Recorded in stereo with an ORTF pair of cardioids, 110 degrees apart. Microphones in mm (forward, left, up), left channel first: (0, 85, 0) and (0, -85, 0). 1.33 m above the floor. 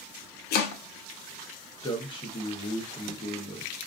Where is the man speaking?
30° left, 1.1 m.